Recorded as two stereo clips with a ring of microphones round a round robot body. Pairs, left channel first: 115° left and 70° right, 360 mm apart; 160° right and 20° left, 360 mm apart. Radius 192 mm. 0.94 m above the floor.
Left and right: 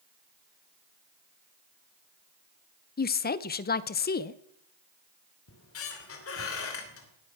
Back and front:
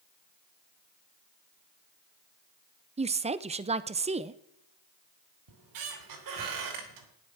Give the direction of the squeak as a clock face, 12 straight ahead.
10 o'clock.